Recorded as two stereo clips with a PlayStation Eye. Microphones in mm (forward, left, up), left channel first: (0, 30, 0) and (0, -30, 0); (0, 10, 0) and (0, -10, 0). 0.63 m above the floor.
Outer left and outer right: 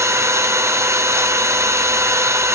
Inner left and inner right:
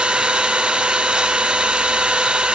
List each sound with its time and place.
0.0 s an engine running: 55° right (ahead or behind), 1.7 m